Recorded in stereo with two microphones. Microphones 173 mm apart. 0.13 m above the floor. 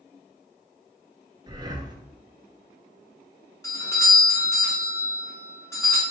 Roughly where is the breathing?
Right.